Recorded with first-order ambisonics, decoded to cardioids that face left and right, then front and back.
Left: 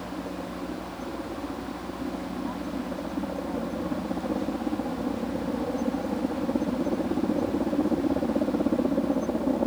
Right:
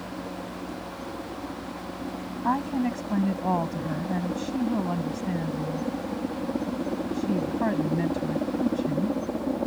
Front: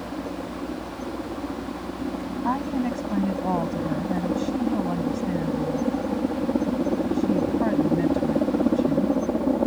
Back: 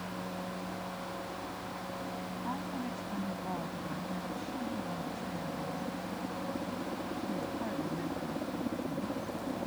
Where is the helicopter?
10° left.